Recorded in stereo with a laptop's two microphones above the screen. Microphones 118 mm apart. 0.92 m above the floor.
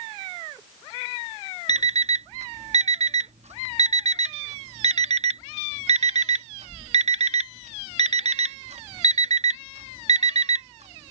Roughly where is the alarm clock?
Right.